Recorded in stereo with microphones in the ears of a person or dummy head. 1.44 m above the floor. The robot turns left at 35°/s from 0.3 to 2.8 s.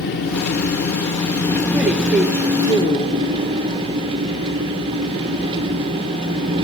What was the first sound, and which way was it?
An engine running, 65° left.